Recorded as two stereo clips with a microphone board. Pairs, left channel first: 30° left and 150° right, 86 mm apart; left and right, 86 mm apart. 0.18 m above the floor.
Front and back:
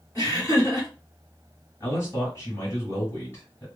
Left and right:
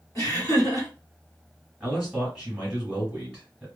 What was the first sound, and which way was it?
Laughter, 60° left.